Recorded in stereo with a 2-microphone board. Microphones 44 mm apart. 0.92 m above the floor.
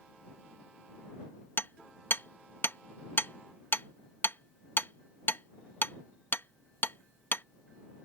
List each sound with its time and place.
1.6 s hammering: 50° left (ahead or behind)